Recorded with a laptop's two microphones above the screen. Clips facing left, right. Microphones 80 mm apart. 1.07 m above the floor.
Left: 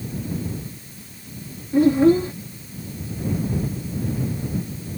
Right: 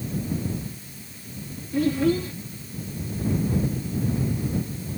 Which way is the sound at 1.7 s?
30° left (ahead or behind).